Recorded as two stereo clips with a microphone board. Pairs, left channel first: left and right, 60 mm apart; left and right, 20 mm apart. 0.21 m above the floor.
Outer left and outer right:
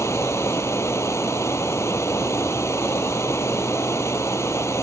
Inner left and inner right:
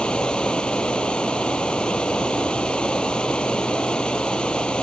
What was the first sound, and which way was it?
Running water, 50° left (ahead or behind).